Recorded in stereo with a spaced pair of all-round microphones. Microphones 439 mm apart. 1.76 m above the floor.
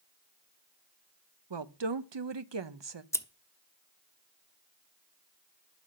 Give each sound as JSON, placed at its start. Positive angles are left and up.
{"t": 1.5, "sound": "a woman speaking", "side_deg": -70, "distance_m": 0.8}
{"t": 3.1, "sound": "scissors", "side_deg": 5, "distance_m": 0.8}